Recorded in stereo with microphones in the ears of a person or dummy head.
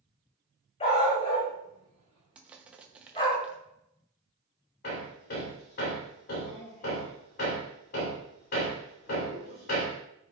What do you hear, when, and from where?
0.8 s a dog barking: 40° left (ahead or behind), 4 m; by 3.4 s 35° left (ahead or behind), 5.5 m
2.4 s crushing: 10° right (ahead or behind), 0.9 m
4.8 s hammering: 60° left (ahead or behind), 2.5 m